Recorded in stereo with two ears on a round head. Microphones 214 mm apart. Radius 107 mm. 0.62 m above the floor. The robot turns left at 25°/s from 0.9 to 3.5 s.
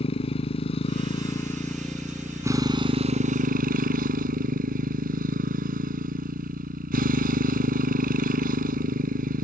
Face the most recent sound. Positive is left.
turn(degrees=-40)